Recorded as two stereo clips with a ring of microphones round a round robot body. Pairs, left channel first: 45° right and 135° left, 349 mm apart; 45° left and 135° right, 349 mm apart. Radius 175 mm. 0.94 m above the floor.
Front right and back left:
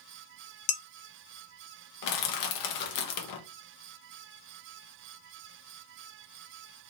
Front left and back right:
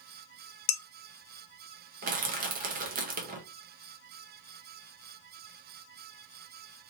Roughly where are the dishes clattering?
Ahead.